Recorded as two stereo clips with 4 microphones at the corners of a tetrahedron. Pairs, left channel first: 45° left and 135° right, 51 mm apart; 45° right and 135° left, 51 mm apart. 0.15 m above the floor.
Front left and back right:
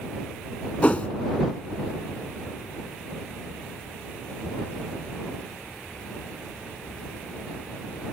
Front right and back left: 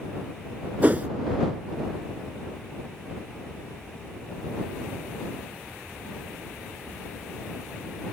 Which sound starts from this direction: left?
A whoosh, at 0.8 s.